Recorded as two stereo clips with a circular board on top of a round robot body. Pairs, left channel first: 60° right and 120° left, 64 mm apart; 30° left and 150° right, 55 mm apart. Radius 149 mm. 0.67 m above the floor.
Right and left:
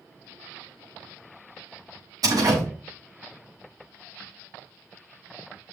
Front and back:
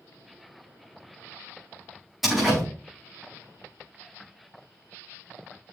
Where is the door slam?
125° left, 6 m.